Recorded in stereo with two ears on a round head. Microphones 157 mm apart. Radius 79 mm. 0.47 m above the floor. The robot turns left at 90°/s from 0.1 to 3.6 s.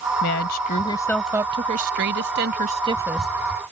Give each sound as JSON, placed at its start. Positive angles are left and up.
{"t": 0.2, "sound": "a woman speaking", "azimuth_deg": 90}